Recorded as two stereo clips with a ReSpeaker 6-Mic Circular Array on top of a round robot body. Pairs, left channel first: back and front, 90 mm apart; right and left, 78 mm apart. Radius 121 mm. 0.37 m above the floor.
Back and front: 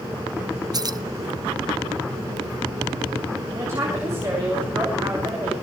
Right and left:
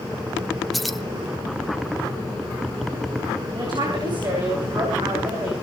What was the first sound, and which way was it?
Keys jangling, straight ahead.